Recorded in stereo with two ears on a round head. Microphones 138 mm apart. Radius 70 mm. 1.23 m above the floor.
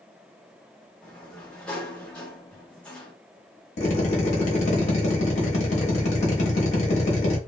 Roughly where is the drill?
Left.